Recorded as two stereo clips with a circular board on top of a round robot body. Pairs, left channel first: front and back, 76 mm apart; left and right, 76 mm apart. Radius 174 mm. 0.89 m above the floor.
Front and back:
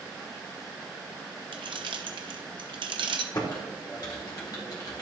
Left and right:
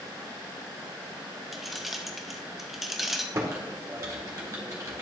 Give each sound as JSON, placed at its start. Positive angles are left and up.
{"t": 1.5, "sound": "keys jangling", "azimuth_deg": 180, "distance_m": 0.8}
{"t": 3.3, "sound": "typing on a keyboard", "azimuth_deg": -40, "distance_m": 1.5}